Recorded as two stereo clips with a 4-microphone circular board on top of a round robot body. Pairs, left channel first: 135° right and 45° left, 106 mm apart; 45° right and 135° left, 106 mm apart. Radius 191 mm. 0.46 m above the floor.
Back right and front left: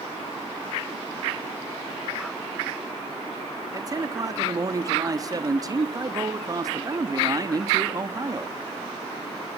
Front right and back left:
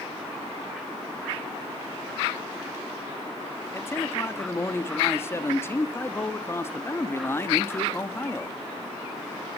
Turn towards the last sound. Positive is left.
turn(degrees=10)